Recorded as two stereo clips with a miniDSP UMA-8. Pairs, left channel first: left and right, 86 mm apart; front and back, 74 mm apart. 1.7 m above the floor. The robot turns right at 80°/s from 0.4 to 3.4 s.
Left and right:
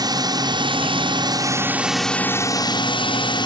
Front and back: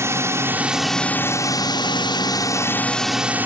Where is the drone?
125° right; by 3.5 s 115° left.